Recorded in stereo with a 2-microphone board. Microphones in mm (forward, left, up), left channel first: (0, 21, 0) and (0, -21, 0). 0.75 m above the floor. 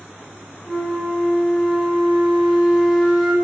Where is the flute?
15° right (ahead or behind), 0.6 m.